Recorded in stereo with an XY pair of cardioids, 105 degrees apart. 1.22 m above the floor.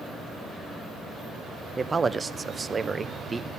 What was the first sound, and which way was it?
A man speaking, 30° right.